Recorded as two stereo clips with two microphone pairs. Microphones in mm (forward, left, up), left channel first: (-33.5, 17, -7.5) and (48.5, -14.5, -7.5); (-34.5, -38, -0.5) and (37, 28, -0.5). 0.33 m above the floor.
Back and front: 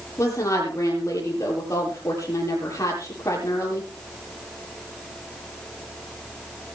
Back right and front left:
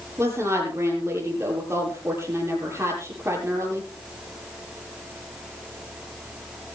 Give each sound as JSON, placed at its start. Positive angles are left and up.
{"t": 0.2, "sound": "a woman speaking", "azimuth_deg": 105, "distance_m": 8.5}